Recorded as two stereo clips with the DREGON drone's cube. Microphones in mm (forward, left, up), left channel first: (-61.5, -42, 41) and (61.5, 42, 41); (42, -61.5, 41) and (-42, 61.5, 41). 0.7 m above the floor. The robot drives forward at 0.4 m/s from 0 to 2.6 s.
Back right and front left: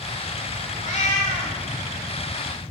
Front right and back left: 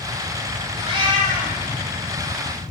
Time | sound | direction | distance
0.8 | a cat meowing | straight behind | 1.3 m